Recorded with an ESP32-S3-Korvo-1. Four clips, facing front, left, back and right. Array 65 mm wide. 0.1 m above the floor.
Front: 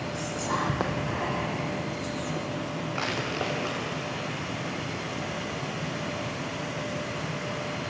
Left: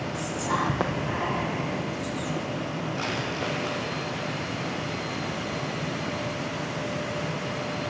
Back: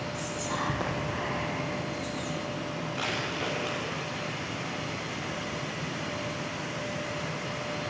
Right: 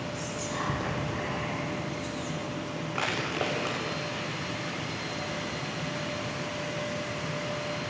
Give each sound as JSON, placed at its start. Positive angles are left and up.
{"t": 0.1, "sound": "whispering", "azimuth_deg": 55, "distance_m": 3.5}
{"t": 3.0, "sound": "crushing", "azimuth_deg": -50, "distance_m": 6.5}